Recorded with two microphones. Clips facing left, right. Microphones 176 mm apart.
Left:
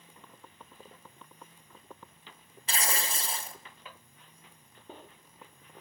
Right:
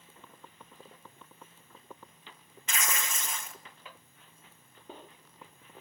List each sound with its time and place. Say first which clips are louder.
2.7 s tearing paper: left 2 dB; 35° left (ahead or behind), 0.9 m